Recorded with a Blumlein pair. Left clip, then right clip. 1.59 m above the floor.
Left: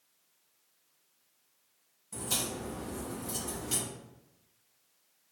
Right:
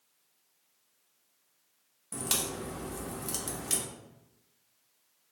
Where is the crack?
50° right, 1.0 m.